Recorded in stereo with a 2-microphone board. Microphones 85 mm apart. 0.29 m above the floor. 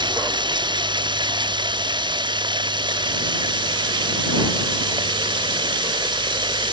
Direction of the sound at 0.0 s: 65° right (ahead or behind).